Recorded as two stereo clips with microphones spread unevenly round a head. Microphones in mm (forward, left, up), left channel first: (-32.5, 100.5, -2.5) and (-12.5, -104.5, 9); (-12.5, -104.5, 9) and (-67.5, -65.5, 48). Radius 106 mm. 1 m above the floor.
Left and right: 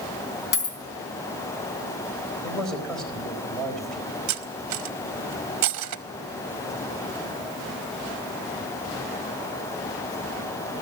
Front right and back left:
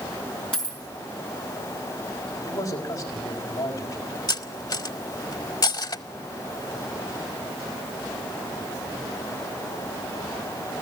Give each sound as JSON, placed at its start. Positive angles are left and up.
{"t": 0.5, "sound": "a dropped coin", "azimuth_deg": 65, "distance_m": 4.0}
{"t": 2.4, "sound": "a man speaking", "azimuth_deg": 10, "distance_m": 4.0}
{"t": 4.3, "sound": "cutlery clinking", "azimuth_deg": -65, "distance_m": 0.9}